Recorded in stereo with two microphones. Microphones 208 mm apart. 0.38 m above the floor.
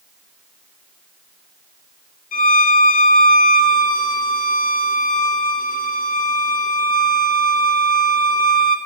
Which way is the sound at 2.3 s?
40° left (ahead or behind).